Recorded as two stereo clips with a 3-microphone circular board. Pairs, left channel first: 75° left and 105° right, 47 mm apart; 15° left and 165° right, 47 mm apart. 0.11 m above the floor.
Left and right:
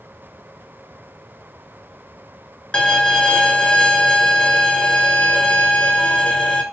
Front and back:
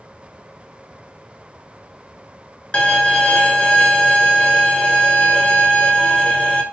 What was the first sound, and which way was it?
A violin, 35° left.